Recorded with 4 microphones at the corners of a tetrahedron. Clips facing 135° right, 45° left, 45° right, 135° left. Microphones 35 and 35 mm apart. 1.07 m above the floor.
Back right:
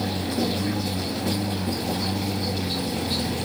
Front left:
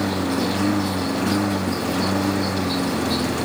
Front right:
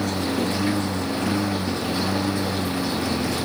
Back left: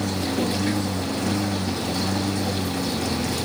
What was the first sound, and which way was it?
A lawn mower, 30° left.